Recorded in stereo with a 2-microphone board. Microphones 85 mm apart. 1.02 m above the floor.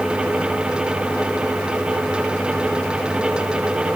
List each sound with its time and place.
Only background noise.